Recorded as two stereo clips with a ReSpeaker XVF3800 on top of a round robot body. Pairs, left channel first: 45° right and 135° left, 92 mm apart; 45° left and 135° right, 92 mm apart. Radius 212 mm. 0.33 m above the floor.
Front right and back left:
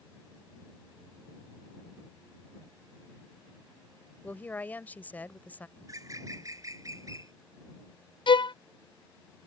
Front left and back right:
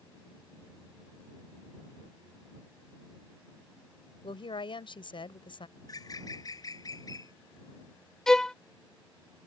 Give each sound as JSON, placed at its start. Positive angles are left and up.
{"t": 4.2, "sound": "a woman speaking", "azimuth_deg": 25}
{"t": 5.8, "sound": "a bird", "azimuth_deg": 85}
{"t": 8.3, "sound": "a violin", "azimuth_deg": -40}